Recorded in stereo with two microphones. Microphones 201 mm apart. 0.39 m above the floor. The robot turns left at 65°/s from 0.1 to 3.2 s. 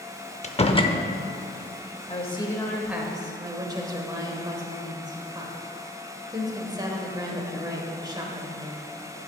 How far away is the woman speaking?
About 1.3 m.